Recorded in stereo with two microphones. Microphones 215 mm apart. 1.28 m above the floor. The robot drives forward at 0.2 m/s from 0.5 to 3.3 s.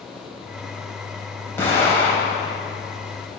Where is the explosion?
10° left (ahead or behind), 3 m.